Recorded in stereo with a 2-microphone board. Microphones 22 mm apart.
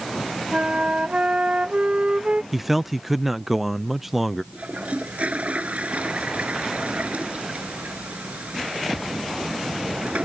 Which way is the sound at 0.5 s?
80° right.